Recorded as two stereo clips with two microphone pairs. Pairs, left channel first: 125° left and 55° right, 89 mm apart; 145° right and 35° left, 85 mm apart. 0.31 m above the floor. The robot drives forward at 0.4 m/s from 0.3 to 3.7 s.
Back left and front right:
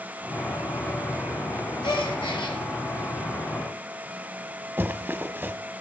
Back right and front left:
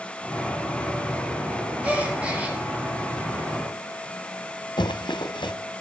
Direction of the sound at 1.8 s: 105° left.